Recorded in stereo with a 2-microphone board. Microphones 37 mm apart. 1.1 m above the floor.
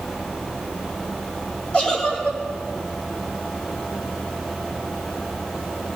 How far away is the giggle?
About 6.5 m.